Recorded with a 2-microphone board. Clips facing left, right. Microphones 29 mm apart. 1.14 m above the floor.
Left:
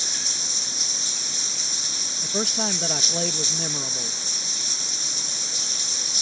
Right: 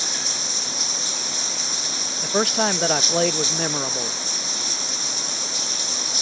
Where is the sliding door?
No sliding door in this recording.